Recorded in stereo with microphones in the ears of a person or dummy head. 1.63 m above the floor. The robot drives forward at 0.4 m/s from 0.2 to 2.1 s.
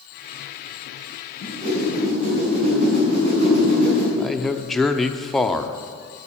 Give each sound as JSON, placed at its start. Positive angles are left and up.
{"t": 1.4, "sound": "a whoosh", "side_deg": -40, "distance_m": 5.0}
{"t": 4.2, "sound": "a man speaking", "side_deg": 0, "distance_m": 0.7}